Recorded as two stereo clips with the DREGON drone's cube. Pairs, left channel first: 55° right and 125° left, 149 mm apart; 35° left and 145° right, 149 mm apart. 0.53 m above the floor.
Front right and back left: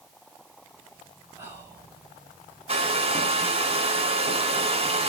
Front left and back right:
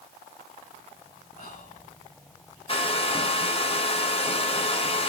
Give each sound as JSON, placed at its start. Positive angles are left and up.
{"t": 1.4, "sound": "whispering", "azimuth_deg": 50, "distance_m": 2.5}
{"t": 2.7, "sound": "a hair dryer", "azimuth_deg": 80, "distance_m": 0.9}